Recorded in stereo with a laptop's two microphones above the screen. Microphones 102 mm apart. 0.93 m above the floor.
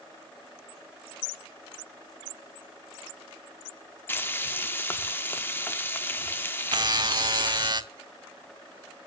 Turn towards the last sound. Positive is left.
turn(degrees=-45)  # may be behind; listen again after turning